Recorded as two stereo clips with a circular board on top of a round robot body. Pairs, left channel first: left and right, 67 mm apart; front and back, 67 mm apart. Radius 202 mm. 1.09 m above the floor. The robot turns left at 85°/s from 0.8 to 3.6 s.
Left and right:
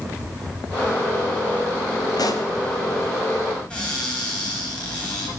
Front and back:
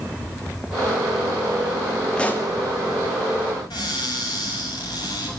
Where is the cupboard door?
15° left, 6 m.